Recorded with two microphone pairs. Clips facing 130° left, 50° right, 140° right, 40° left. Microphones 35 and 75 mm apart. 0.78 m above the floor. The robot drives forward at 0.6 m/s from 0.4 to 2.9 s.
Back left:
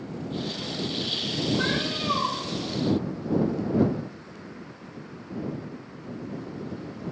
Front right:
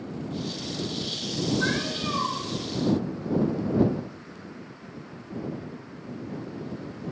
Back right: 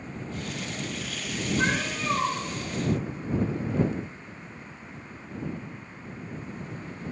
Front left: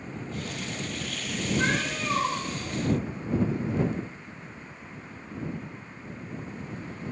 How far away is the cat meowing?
About 3 m.